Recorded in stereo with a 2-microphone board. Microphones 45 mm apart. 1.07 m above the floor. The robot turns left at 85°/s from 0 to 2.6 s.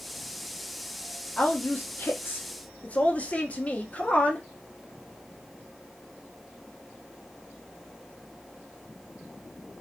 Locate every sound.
1.4 s a woman speaking: 145° left, 0.6 m; by 4.5 s 40° left, 0.6 m